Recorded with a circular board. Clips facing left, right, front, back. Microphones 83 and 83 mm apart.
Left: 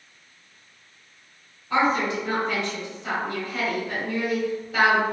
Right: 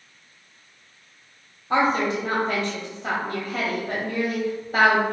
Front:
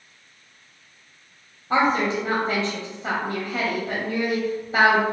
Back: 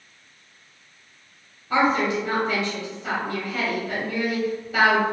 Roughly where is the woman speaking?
Ahead right.